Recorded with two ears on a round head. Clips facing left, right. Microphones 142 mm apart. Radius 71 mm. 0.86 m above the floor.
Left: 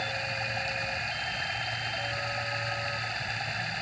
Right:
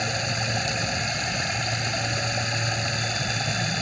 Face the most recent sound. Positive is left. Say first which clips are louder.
# right 6 dB
turn(degrees=-60)  # may be behind; listen again after turning